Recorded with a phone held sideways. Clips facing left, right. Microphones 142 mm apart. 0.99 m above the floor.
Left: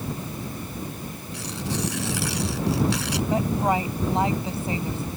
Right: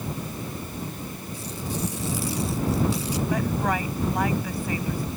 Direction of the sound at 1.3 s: 80° left.